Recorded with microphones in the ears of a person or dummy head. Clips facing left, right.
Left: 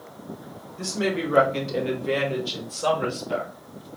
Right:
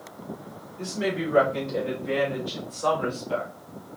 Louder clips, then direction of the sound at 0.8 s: Left 2 dB; 70° left (ahead or behind).